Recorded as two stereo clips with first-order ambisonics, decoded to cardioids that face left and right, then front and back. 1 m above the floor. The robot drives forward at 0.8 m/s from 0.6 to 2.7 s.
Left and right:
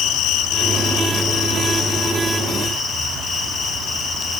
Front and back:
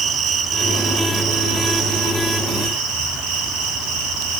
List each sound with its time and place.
0.0 s an insect: 125° left, 1.7 m; by 4.4 s 155° left, 3 m